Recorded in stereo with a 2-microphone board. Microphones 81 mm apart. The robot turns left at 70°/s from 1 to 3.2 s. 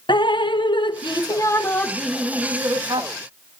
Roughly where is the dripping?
Left.